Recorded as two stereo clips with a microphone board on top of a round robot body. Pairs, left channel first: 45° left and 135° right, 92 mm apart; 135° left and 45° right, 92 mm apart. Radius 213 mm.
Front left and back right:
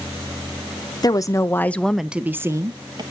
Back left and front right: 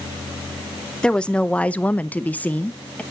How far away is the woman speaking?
About 1.0 m.